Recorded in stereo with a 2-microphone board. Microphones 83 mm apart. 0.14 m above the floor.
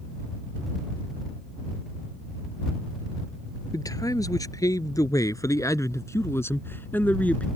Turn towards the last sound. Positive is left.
turn(degrees=15)  # may be behind; listen again after turning